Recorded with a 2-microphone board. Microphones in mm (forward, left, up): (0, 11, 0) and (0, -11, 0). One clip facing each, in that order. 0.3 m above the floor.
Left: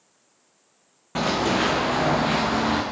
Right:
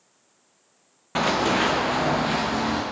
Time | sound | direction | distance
1.1 | running footsteps | 20° right (ahead or behind) | 1.3 m